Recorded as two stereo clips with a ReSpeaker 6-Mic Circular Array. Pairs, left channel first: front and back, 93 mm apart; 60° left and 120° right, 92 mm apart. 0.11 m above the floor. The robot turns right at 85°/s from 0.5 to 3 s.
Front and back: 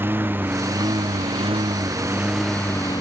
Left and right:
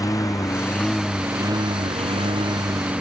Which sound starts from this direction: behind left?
A lawn mower, at 0.0 s.